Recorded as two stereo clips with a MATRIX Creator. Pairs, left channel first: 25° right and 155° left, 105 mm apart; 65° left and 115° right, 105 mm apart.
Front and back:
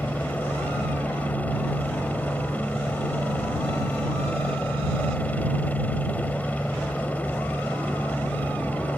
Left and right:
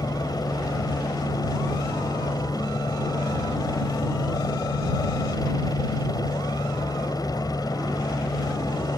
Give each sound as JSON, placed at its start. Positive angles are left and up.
{"t": 0.0, "sound": "a helicopter", "azimuth_deg": 45}